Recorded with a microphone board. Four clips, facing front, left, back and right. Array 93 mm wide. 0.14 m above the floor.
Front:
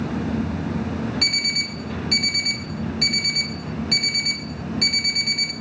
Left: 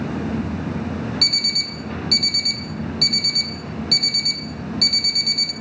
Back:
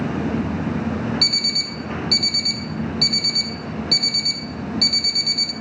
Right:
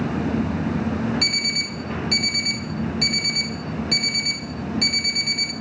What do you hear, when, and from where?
1.2 s an alarm clock: 45° right, 0.6 m